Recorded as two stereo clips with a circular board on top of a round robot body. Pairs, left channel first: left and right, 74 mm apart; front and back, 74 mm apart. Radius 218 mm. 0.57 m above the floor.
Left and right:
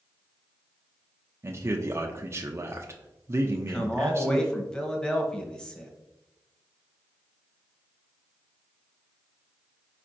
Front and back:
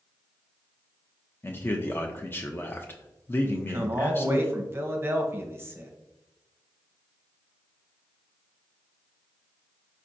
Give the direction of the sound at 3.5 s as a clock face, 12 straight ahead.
7 o'clock.